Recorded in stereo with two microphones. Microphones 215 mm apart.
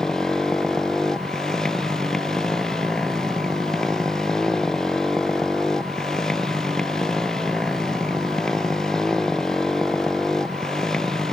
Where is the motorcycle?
5° left (ahead or behind).